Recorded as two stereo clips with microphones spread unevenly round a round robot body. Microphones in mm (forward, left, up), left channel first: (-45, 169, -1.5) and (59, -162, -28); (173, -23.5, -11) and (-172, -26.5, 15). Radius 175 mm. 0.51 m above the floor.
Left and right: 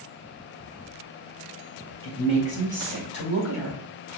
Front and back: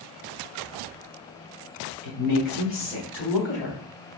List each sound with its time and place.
2.0 s a woman speaking: 30° left, 1.8 m; by 3.8 s 60° left, 1.9 m